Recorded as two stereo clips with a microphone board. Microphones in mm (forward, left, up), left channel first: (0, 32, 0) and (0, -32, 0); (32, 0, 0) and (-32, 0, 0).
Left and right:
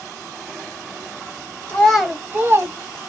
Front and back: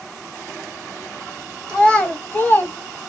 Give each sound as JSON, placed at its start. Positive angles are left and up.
{"t": 1.7, "sound": "a child speaking", "azimuth_deg": 70, "distance_m": 0.7}